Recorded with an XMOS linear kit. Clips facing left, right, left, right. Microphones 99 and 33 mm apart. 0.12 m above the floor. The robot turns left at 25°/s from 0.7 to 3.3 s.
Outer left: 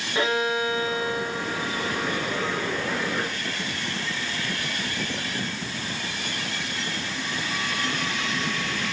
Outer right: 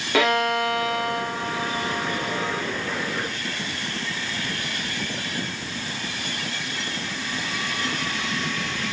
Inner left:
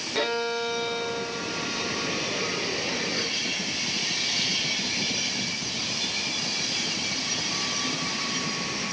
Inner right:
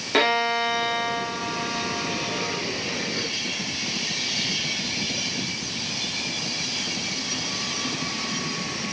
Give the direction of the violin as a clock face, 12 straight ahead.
3 o'clock.